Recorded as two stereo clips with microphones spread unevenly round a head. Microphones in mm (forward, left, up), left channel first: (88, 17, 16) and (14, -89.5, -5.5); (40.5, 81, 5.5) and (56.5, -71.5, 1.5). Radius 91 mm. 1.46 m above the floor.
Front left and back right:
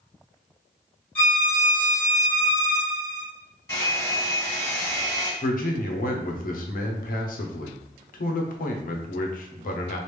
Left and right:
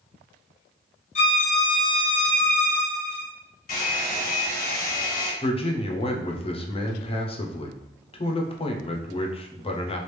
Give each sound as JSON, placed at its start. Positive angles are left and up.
{"t": 1.1, "sound": "a violin", "azimuth_deg": 125, "distance_m": 1.6}
{"t": 3.7, "sound": "a hair dryer", "azimuth_deg": 120, "distance_m": 2.0}
{"t": 5.4, "sound": "a man speaking", "azimuth_deg": 45, "distance_m": 0.7}